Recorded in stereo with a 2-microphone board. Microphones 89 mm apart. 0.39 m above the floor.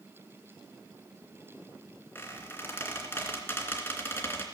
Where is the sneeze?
I don't hear a sneeze.